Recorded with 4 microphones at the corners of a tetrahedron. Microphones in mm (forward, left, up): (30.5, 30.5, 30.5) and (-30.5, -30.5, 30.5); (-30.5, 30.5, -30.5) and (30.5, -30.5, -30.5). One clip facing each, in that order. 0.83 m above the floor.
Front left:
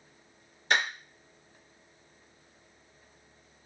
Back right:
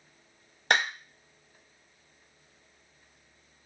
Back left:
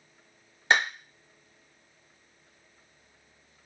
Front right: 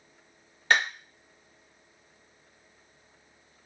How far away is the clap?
About 1.3 m.